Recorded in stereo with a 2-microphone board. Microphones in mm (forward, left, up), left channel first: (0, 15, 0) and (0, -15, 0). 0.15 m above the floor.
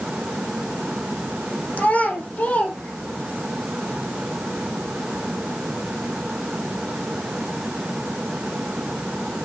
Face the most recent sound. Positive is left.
turn(degrees=70)  # may be behind; listen again after turning